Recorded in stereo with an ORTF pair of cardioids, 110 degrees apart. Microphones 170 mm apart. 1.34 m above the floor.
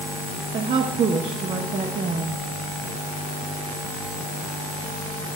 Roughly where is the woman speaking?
Ahead right.